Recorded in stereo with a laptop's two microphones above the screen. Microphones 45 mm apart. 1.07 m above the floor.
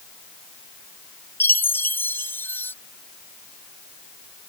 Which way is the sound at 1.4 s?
55° left (ahead or behind).